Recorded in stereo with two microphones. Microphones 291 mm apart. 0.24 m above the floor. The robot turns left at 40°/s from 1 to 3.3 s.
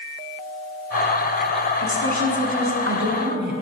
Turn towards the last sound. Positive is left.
turn(degrees=-135)